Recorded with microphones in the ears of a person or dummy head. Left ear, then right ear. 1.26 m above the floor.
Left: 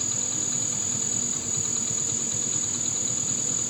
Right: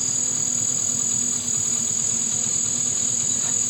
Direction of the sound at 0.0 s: 70° right (ahead or behind).